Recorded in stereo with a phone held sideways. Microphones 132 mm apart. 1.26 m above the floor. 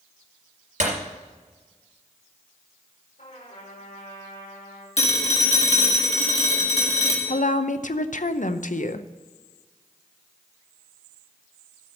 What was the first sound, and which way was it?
Breaking glass, 70° right (ahead or behind).